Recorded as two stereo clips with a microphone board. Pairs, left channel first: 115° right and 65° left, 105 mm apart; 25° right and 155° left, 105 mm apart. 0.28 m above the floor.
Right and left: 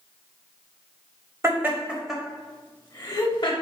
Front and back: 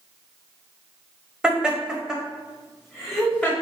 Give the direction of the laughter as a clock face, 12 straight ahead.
9 o'clock.